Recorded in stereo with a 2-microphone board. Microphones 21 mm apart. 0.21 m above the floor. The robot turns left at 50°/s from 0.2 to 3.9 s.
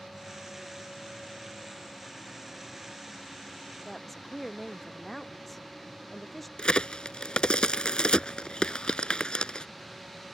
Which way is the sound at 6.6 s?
45° left (ahead or behind).